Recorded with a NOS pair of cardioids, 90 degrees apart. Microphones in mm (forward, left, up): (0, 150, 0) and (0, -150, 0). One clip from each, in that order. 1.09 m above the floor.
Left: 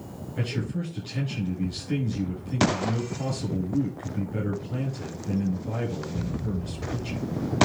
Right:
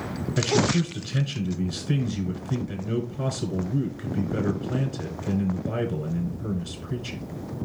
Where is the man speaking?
70° right, 8 m.